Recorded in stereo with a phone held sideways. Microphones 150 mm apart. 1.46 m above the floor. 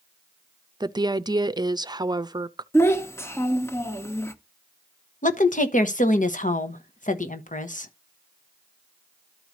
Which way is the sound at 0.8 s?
30° right (ahead or behind).